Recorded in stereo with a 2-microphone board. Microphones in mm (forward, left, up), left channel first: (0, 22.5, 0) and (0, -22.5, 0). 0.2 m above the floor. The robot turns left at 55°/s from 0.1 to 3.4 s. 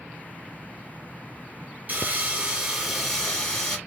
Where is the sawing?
115° right, 1.5 m; by 3.8 s 160° left, 1.5 m.